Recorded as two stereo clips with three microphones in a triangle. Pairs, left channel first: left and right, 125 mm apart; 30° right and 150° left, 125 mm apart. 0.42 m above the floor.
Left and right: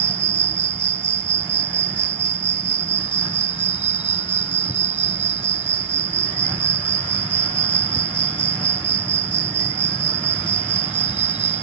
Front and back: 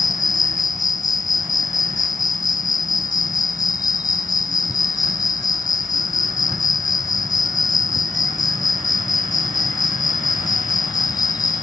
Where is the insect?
85° right.